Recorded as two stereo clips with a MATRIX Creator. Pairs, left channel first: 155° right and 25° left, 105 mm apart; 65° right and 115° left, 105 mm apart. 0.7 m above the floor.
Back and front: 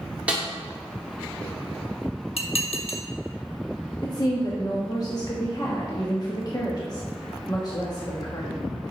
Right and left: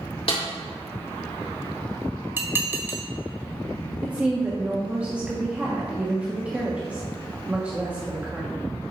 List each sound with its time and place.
0.3 s a snare drum: 55° right, 1.8 m
2.4 s dishes clattering: straight behind, 1.1 m
4.0 s a woman speaking: 175° right, 1.0 m